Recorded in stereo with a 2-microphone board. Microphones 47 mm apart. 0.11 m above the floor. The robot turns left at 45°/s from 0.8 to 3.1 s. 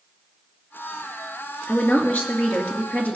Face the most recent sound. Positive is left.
turn(degrees=55)